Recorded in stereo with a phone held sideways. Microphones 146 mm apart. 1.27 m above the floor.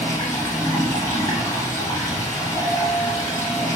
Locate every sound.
0.0 s running water: 25° left (ahead or behind), 1.2 m
2.6 s a clink: 30° right (ahead or behind), 0.5 m